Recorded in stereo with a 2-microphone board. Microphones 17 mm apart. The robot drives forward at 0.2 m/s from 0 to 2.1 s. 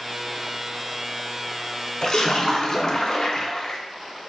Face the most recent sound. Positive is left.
turn(degrees=40)  # may be behind; listen again after turning